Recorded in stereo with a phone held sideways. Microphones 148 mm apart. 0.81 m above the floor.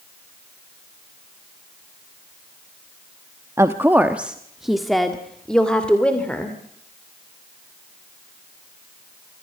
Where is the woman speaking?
20° right (ahead or behind), 0.9 m; by 6.6 s 10° left (ahead or behind), 2.5 m.